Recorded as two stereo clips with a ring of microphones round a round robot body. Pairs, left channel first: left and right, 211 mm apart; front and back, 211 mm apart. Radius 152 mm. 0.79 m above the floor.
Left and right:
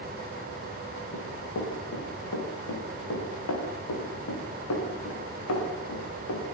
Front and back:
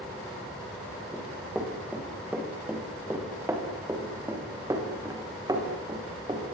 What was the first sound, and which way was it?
Running footsteps, 95° left.